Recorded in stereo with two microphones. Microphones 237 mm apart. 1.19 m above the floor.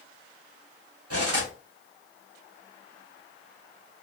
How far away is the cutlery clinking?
About 1.0 m.